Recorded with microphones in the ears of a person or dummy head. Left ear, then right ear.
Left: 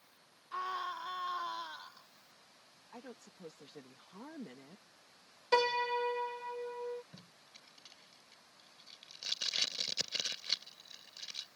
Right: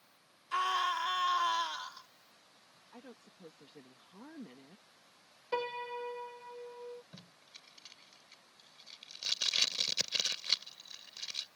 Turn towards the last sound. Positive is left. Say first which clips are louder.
# right 2 dB
turn(degrees=-15)  # may be behind; listen again after turning